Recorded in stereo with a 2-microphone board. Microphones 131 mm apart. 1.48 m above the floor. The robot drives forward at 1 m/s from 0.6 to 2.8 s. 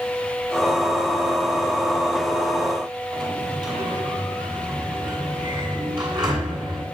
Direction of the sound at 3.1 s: 30° right (ahead or behind).